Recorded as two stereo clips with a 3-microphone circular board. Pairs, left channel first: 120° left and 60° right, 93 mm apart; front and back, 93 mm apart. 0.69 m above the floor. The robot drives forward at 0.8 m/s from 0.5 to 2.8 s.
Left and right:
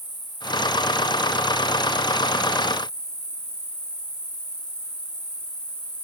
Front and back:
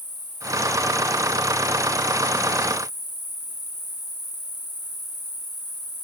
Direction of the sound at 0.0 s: 35° right.